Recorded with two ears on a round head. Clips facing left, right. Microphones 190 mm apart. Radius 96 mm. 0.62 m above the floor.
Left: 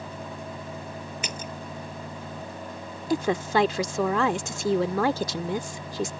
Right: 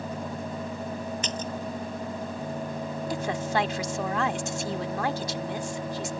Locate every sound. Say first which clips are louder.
1.2 s a splash: right 4 dB; 10° left (ahead or behind)
3.1 s a woman speaking: left 6 dB; 65° left (ahead or behind)